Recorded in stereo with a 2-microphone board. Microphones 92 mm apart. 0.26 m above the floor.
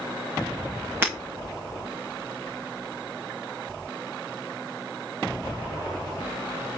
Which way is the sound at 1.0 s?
25° right (ahead or behind).